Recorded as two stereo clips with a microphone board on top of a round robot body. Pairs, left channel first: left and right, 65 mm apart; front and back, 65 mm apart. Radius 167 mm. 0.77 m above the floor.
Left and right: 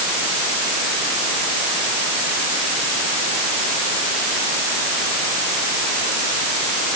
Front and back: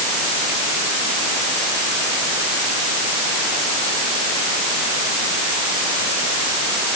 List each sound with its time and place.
Only background noise.